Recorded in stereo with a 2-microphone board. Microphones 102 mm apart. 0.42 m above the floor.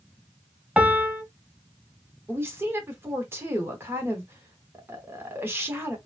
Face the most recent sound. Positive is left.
turn(degrees=-25)  # may be behind; listen again after turning